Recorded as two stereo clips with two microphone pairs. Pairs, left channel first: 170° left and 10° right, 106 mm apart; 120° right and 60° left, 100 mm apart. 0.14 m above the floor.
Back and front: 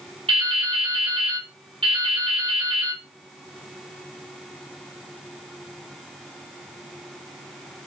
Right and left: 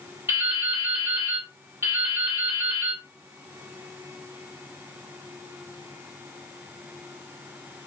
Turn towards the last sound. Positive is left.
turn(degrees=-10)